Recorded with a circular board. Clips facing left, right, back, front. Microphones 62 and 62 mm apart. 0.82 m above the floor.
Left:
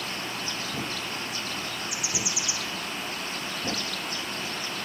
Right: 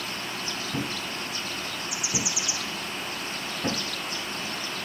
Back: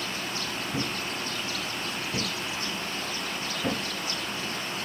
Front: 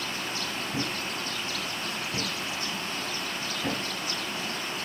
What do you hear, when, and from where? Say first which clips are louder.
0.7 s a thud: right 1 dB, back 1 dB; 100° right, 7 m